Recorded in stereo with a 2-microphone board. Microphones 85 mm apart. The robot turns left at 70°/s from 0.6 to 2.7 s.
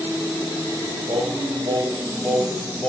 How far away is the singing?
About 8 m.